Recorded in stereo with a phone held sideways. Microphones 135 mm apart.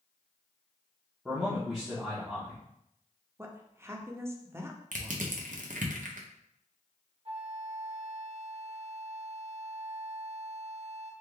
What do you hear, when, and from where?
1.2 s a man speaking: centre (ahead or behind), 0.9 m
3.4 s a woman speaking: 20° right (ahead or behind), 0.5 m
4.9 s crushing: 70° right (ahead or behind), 0.6 m
7.2 s a flute: 45° right (ahead or behind), 0.6 m